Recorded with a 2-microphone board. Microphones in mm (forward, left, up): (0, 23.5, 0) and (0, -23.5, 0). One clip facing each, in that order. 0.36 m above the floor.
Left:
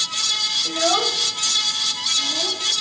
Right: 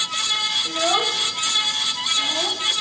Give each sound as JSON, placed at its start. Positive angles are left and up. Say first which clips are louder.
{"t": 0.7, "sound": "a child speaking", "louder": "left 2 dB", "side_deg": 5, "distance_m": 1.3}